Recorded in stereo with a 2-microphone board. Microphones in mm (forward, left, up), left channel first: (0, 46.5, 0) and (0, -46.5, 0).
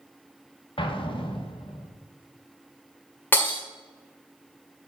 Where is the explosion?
65° left (ahead or behind), 1.1 m.